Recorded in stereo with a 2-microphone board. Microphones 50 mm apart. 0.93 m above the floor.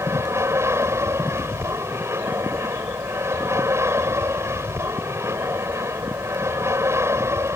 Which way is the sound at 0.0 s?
70° right (ahead or behind).